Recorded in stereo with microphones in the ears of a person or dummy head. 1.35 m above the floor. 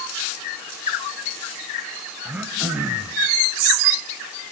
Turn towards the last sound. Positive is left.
turn(degrees=-5)  # may be behind; listen again after turning